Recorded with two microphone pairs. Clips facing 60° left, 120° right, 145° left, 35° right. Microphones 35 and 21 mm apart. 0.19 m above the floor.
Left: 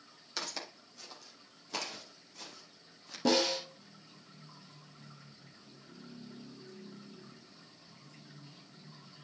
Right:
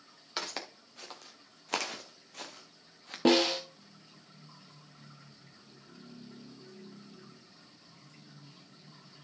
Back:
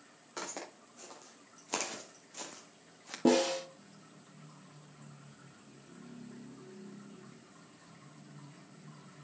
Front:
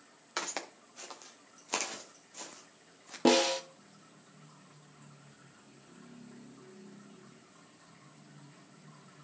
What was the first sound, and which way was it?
Footsteps, 65° right.